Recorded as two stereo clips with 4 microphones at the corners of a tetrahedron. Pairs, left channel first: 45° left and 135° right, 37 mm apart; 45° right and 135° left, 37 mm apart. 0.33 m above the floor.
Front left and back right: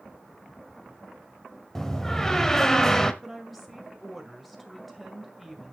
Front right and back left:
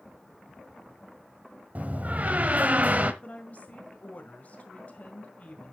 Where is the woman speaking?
45° right, 1.9 m.